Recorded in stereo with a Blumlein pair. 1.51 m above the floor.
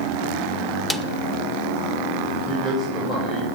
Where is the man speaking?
5° right, 9.5 m.